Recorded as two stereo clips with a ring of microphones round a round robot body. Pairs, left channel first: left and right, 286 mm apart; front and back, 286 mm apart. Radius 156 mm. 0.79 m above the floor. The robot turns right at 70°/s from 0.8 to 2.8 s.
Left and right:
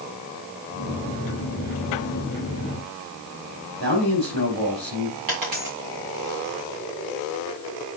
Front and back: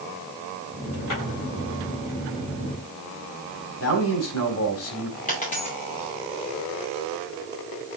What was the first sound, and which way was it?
A man speaking, 35° right.